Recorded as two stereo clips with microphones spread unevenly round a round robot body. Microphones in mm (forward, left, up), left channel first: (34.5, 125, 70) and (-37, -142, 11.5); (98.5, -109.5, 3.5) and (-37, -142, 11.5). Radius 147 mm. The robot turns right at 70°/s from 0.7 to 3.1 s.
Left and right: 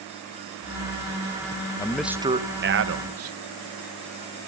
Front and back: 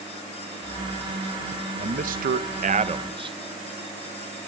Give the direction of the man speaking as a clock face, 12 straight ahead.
7 o'clock.